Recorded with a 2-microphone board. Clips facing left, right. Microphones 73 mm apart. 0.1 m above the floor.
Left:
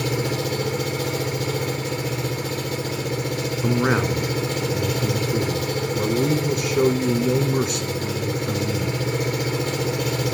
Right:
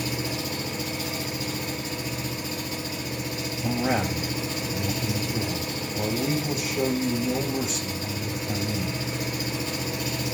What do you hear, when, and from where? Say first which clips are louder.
0.0 s an engine running: left 6 dB; 65° left (ahead or behind), 3.5 m
3.6 s a man speaking: left 4 dB; 70° left (ahead or behind), 5 m